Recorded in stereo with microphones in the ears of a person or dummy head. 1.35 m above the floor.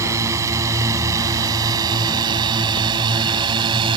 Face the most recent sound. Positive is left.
turn(degrees=-30)  # may be behind; listen again after turning